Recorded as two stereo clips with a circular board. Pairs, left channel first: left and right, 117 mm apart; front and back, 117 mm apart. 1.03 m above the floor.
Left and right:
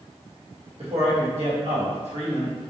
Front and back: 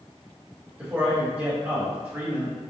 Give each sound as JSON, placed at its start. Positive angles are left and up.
{"t": 0.8, "sound": "a man speaking", "azimuth_deg": -105, "distance_m": 1.8}